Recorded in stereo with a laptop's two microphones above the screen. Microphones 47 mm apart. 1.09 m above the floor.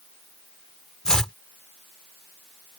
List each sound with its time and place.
1.1 s chopping: 10° left (ahead or behind)